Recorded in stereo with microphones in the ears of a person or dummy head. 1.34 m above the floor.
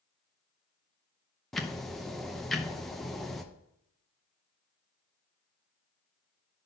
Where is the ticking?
Centre (ahead or behind), 0.5 m.